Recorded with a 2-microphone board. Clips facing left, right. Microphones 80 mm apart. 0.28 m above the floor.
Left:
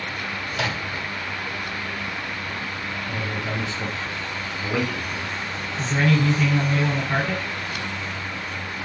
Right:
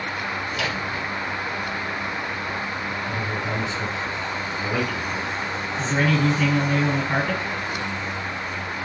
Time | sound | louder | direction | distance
0.5 | a microwave | right 1 dB | 35° left (ahead or behind) | 1.4 m
3.1 | a man speaking | even | 5° right (ahead or behind) | 1.6 m
5.8 | a man speaking | even | 15° right (ahead or behind) | 2.5 m